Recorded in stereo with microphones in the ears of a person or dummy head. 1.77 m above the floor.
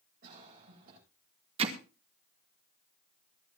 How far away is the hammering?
About 1.7 m.